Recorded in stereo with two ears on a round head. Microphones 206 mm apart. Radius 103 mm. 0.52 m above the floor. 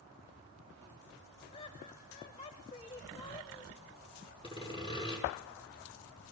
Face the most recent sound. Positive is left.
turn(degrees=25)  # may be behind; listen again after turning